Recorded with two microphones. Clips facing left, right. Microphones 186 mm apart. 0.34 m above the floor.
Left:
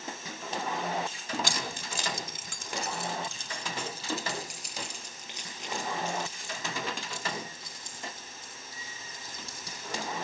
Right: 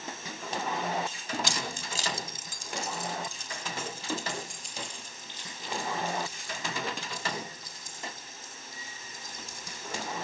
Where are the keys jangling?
55° left (ahead or behind), 1.4 m; by 10.2 s 85° left, 11 m.